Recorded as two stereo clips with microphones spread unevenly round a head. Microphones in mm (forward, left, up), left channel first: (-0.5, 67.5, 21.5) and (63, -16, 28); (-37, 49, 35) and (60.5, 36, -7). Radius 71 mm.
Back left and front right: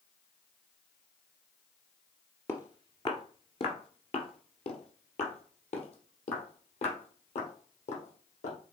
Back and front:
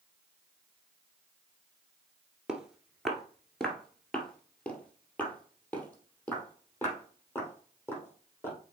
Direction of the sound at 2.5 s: 150° left.